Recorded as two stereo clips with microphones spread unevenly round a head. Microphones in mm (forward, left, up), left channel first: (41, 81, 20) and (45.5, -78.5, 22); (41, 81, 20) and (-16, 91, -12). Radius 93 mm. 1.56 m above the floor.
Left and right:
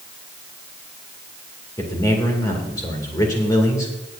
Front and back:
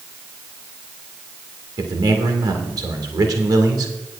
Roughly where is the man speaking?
Behind.